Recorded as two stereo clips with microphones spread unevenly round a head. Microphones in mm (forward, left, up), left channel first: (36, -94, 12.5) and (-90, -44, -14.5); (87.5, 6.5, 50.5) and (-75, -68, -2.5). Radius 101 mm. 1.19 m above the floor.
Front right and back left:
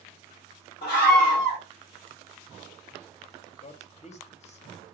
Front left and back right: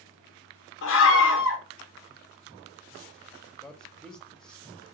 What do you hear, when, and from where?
0.8 s a scream: 45° left, 0.8 m
3.6 s a man speaking: 65° right, 0.8 m